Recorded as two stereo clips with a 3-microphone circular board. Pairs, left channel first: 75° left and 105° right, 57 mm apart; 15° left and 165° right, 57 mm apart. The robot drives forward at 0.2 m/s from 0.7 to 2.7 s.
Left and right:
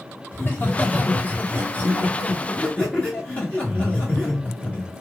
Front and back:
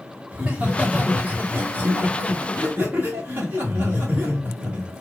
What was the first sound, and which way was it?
Laughter, 125° left.